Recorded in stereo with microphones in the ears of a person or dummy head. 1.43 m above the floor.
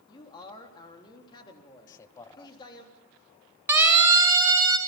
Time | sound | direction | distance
0.1 | a man speaking | 25° left (ahead or behind) | 3.5 m
1.9 | a man speaking | 20° left (ahead or behind) | 1.0 m
3.7 | a siren | 10° right (ahead or behind) | 3 m